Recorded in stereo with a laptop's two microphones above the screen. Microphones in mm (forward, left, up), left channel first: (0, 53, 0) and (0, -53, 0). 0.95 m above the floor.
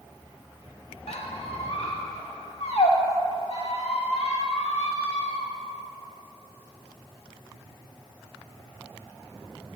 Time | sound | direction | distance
1.1 | a squeak | 75° left (ahead or behind) | 1.1 m